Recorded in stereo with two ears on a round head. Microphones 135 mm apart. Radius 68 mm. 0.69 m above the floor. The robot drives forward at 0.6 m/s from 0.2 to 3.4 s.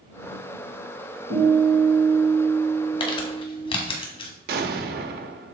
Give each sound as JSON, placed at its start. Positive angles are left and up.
{"t": 1.3, "sound": "a guitar", "side_deg": -80, "distance_m": 3.0}
{"t": 3.0, "sound": "crumpling", "side_deg": 35, "distance_m": 1.3}
{"t": 4.5, "sound": "an explosion", "side_deg": -70, "distance_m": 0.7}